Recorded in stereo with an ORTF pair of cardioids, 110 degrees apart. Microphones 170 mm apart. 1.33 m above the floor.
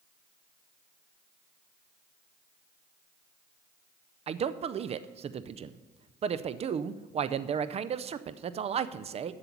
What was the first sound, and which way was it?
A man speaking, 40° right.